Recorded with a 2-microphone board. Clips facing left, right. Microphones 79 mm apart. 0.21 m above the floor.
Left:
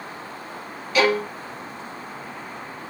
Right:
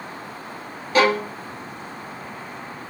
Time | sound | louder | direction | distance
0.9 | a violin | right 2 dB | 40° right (ahead or behind) | 0.6 m